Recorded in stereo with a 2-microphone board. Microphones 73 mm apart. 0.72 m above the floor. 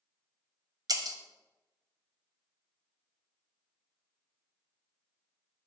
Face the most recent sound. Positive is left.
turn(degrees=-65)  # may be behind; listen again after turning